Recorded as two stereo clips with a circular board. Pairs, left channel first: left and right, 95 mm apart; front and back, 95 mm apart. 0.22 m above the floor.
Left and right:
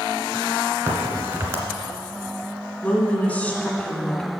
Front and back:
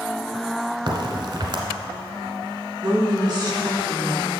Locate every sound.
0.9 s a crack: 150° right, 1.4 m
2.8 s a woman speaking: 155° left, 1.3 m